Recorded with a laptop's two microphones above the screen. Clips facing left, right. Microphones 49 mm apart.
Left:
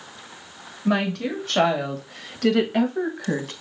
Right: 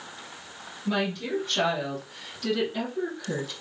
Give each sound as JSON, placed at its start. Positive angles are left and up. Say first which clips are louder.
{"t": 0.8, "sound": "a woman speaking", "louder": "left 5 dB", "side_deg": 75, "distance_m": 1.9}